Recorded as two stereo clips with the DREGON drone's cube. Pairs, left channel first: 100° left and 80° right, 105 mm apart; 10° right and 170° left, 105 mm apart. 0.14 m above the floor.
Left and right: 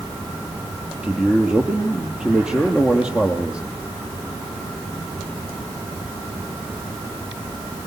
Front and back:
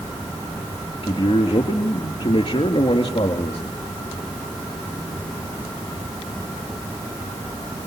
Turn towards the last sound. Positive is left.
turn(degrees=0)